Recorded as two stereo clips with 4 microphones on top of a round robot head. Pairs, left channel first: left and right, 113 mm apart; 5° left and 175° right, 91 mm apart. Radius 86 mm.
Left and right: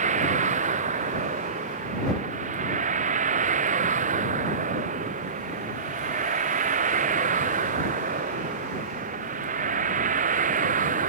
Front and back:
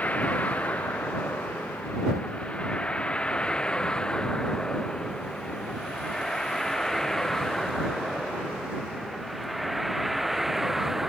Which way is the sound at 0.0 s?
75° right.